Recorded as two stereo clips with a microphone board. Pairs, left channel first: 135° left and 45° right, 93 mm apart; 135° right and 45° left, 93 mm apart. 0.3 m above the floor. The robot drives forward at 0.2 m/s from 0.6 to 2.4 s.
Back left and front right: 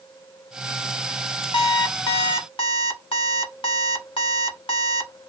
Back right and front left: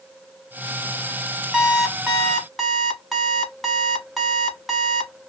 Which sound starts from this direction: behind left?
An alarm clock, at 1.5 s.